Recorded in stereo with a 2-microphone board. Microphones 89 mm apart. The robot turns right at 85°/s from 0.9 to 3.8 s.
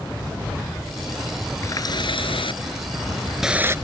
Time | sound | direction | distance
1.6 | a running tap | 30° left | ?